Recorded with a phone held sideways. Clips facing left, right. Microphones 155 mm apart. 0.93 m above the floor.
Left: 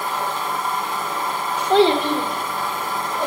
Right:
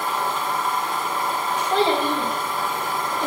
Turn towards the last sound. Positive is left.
turn(degrees=65)  # may be behind; listen again after turning